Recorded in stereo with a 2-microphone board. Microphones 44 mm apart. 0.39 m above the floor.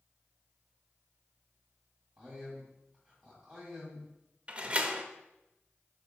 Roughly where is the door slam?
Right.